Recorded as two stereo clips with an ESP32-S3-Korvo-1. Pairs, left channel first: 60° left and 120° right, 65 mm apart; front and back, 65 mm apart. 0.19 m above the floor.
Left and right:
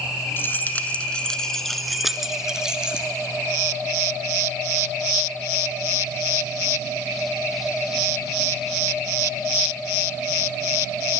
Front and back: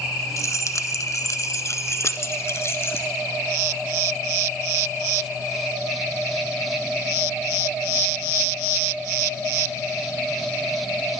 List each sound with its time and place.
0.4 s keys jangling: 10° left, 1.2 m; by 3.1 s 45° right, 1.9 m